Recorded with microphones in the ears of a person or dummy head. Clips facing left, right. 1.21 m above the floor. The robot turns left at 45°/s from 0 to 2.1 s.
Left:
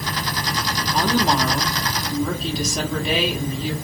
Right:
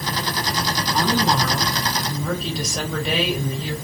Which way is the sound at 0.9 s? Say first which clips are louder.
Left 1 dB; 55° left.